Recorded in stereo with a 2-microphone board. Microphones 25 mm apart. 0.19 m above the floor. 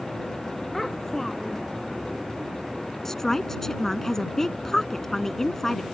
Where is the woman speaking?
15° left (ahead or behind).